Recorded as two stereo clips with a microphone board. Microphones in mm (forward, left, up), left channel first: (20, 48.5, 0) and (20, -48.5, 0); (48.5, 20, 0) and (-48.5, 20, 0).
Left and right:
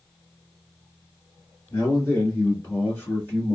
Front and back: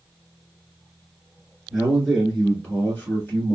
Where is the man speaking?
95° left, 1.9 m; by 3.5 s 35° left, 1.8 m.